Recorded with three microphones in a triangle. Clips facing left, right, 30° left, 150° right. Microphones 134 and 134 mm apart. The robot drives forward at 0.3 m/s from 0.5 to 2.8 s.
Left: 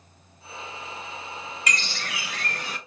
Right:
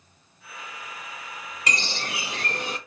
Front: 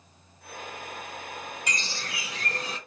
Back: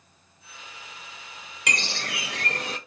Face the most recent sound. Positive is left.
turn(degrees=-160)